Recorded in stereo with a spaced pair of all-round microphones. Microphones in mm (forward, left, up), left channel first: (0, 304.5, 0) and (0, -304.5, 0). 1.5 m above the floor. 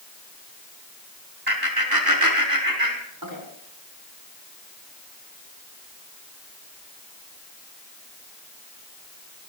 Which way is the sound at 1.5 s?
35° right (ahead or behind).